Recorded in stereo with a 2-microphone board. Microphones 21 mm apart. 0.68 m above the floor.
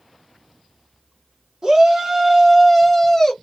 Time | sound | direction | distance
1.6 | a shout | 30° right (ahead or behind) | 1.4 m